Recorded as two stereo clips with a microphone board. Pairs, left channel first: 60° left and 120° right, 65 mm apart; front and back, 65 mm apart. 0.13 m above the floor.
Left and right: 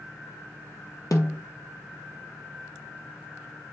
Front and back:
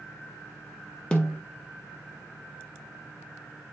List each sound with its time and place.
1.1 s a snare drum: 70° left, 1.2 m